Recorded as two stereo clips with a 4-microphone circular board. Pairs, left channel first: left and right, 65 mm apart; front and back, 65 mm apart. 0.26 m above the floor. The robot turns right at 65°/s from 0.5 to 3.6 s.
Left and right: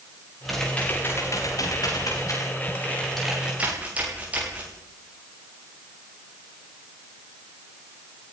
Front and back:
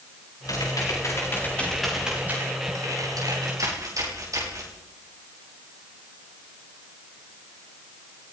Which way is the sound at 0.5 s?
Straight ahead.